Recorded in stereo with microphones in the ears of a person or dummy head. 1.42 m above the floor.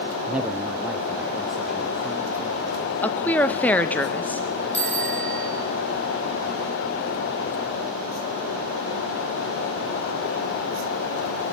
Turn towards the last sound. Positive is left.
turn(degrees=5)  # may be behind; listen again after turning